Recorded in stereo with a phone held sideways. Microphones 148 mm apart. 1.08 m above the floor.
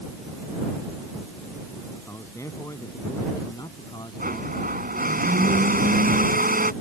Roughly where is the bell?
I don't hear a bell.